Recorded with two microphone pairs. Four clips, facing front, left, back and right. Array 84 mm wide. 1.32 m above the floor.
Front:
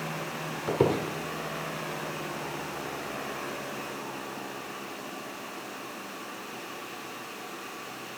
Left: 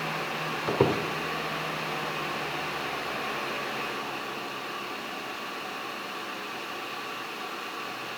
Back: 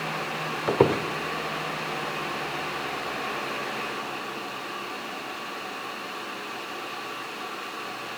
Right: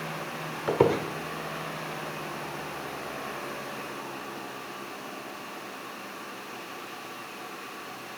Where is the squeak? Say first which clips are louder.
Right 2 dB, back 4 dB; 155° right, 1.6 m.